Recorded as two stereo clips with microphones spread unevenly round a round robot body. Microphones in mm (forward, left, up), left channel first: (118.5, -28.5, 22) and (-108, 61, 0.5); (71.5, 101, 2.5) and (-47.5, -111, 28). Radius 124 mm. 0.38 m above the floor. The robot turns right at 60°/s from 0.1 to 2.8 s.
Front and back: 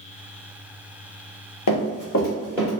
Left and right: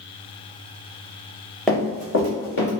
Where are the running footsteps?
30° right, 1.2 m; by 2.7 s 75° left, 1.5 m.